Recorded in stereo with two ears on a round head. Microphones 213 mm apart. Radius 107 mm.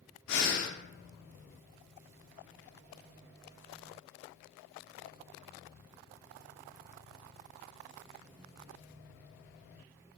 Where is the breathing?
80° left, 0.5 m.